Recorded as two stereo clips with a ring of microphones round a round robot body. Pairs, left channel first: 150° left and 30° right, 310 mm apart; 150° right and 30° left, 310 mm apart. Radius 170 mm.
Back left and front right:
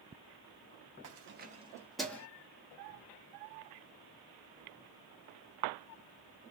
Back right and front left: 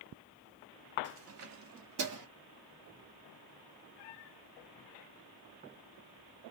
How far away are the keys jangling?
About 0.8 m.